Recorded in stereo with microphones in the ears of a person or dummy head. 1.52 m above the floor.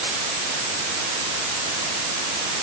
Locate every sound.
Only background noise.